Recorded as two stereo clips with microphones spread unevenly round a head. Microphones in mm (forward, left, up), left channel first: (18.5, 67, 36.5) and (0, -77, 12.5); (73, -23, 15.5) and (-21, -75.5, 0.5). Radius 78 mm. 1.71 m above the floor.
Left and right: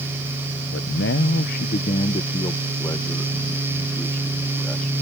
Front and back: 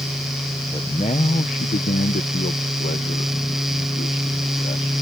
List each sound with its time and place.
0.7 s a man speaking: 95° left; by 5.0 s straight ahead